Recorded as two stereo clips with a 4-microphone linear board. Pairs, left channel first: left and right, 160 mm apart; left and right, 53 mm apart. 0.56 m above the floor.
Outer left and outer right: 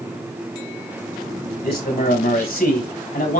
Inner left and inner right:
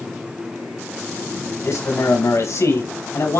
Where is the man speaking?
75° left (ahead or behind), 4.5 m.